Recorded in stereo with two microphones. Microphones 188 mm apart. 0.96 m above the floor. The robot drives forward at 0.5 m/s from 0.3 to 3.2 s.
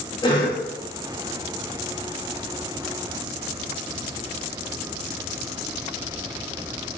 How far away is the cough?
About 0.9 m.